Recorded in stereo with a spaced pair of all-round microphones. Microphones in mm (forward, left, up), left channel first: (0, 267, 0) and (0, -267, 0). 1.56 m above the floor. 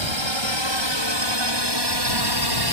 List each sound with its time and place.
0.0 s a drone: 55° right (ahead or behind); by 2.7 s 40° right (ahead or behind)